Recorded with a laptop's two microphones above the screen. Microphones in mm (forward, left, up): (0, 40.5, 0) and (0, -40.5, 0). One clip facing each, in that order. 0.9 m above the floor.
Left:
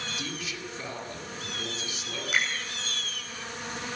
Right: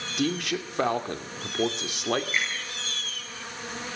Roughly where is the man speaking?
Right.